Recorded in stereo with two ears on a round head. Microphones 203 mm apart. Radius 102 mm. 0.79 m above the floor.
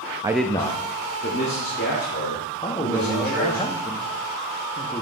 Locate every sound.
0.2 s a man speaking: 20° right (ahead or behind), 0.5 m; by 3.6 s 55° left (ahead or behind), 4.5 m
2.6 s a man speaking: 20° left (ahead or behind), 1.1 m